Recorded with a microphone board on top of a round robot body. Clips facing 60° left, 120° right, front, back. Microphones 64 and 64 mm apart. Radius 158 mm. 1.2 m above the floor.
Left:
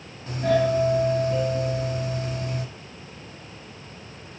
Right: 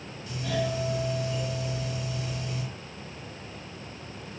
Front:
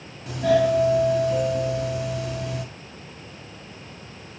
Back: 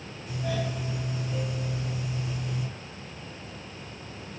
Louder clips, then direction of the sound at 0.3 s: Left 9 dB, front 13 dB; 10° left.